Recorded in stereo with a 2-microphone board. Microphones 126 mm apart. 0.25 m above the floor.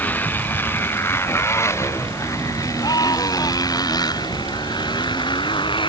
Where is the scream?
35° left (ahead or behind).